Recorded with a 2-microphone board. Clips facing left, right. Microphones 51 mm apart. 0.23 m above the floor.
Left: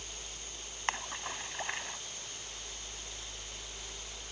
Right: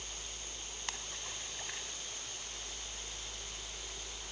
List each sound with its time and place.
0.9 s a splash: 40° left (ahead or behind)